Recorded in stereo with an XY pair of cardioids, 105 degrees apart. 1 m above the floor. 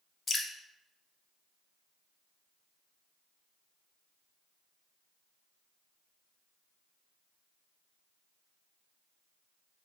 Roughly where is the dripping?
Ahead left.